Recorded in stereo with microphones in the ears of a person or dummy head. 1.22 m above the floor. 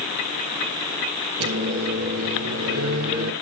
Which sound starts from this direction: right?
A microwave, at 1.4 s.